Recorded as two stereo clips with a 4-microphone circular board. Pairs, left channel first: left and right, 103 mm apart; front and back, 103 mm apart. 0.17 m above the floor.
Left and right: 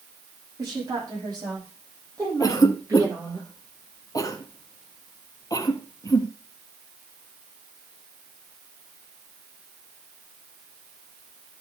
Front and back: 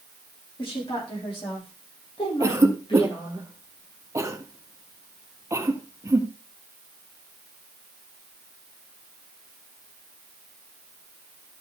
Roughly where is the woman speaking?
Ahead right.